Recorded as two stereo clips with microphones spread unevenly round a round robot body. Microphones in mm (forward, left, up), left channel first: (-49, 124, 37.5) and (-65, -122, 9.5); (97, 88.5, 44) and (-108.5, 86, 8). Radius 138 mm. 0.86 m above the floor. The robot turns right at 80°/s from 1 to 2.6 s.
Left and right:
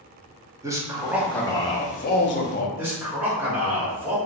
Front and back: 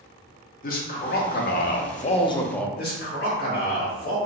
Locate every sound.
0.6 s a man speaking: 35° right, 0.5 m; by 2.7 s 95° left, 0.5 m
2.8 s a man speaking: 25° right, 1.1 m